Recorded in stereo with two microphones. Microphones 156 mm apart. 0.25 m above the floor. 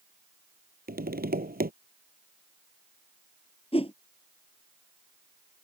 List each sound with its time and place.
0.9 s tapping: 80° right
3.7 s a whoosh: 40° left (ahead or behind)